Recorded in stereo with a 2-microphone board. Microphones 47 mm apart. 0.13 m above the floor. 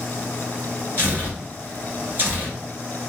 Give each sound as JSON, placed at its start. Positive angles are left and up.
{"t": 1.0, "sound": "tearing paper", "side_deg": -50, "distance_m": 1.4}